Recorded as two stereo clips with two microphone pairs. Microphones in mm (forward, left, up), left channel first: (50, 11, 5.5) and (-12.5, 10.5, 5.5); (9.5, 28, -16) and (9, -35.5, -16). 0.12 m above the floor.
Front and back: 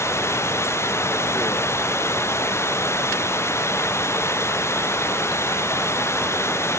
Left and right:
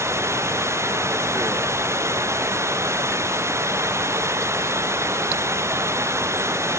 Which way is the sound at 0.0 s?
45° right.